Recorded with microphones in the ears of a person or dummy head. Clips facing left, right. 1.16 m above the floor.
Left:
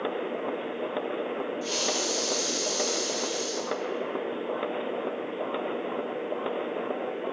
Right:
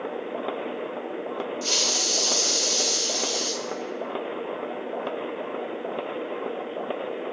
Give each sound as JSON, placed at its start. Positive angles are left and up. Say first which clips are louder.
{"t": 1.6, "sound": "a hiss", "louder": "left 1 dB", "side_deg": -60, "distance_m": 1.4}